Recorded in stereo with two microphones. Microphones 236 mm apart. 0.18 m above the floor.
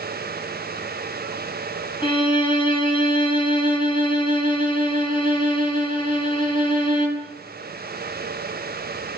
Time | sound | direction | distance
2.0 | a violin | 20° left (ahead or behind) | 1.6 m